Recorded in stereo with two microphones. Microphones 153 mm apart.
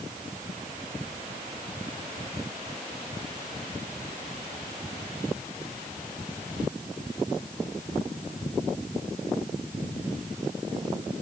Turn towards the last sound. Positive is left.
No sound to turn to.